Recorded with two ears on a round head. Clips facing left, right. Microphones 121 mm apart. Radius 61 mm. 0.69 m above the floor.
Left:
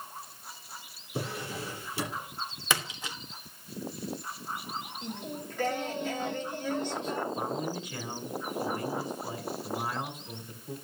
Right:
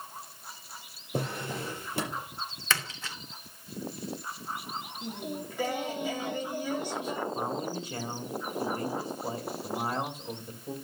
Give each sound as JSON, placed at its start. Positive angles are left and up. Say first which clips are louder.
{"t": 1.1, "sound": "a drawer", "louder": "right 2 dB", "side_deg": -45, "distance_m": 5.5}
{"t": 2.7, "sound": "a splash", "louder": "left 1 dB", "side_deg": 15, "distance_m": 1.1}
{"t": 5.0, "sound": "singing", "louder": "right 2 dB", "side_deg": -10, "distance_m": 1.3}
{"t": 7.3, "sound": "a man speaking", "louder": "even", "side_deg": -30, "distance_m": 2.5}